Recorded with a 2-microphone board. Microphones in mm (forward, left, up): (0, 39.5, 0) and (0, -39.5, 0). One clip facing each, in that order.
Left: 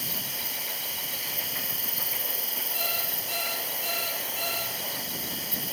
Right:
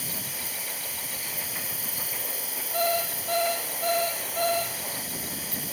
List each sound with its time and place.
0.0 s an insect: 35° right (ahead or behind), 1.2 m
2.7 s an alarm clock: 55° right (ahead or behind), 5.5 m